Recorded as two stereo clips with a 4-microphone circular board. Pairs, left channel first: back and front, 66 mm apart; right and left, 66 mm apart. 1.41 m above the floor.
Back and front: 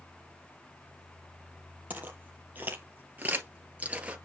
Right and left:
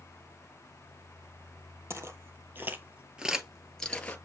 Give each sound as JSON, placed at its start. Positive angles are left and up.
{"t": 1.9, "sound": "footsteps", "azimuth_deg": 60, "distance_m": 2.5}